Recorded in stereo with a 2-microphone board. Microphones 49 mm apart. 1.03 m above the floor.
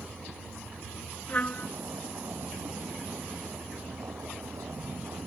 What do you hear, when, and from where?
0.0 s a vehicle: 80° right
1.3 s a trumpet: 30° left (ahead or behind)